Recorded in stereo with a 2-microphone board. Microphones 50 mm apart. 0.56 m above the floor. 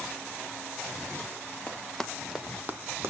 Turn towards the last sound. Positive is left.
turn(degrees=-55)  # may be behind; listen again after turning